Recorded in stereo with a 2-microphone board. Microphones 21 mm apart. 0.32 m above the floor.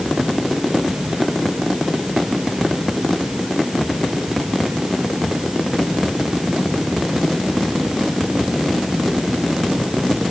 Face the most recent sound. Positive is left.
No sound to turn to.